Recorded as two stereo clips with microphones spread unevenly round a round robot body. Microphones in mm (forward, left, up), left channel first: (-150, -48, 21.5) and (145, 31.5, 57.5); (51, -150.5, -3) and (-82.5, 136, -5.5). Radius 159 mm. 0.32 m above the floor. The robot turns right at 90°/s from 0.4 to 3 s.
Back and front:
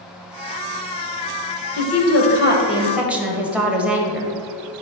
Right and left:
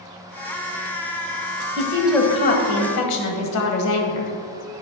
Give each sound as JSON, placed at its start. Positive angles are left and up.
{"t": 1.8, "sound": "a woman speaking", "azimuth_deg": 175, "distance_m": 1.3}